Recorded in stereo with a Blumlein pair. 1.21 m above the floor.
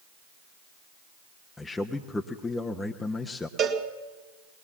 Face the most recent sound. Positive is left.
turn(degrees=-25)